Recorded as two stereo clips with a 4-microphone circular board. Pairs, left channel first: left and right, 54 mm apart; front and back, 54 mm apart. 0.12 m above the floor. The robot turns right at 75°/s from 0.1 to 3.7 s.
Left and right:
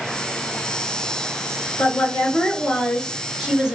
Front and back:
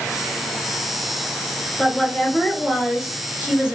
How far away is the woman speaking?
About 1.7 m.